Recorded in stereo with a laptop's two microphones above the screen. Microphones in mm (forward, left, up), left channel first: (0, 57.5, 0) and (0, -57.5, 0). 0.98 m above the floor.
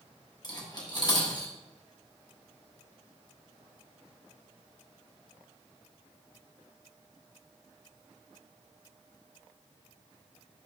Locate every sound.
0.4 s cutlery clinking: 35° left (ahead or behind), 1.2 m